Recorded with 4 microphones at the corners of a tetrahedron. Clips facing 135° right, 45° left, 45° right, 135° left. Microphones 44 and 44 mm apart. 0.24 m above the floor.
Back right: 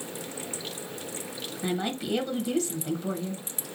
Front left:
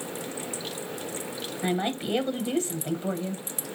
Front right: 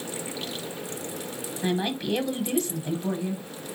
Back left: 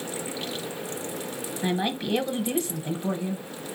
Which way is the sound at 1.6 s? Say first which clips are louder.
Front left 2 dB, even; 65° left.